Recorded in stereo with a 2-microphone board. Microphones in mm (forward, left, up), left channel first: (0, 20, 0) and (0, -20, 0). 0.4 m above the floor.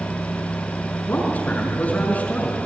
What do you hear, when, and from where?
1.1 s a man speaking: 40° left (ahead or behind), 5.5 m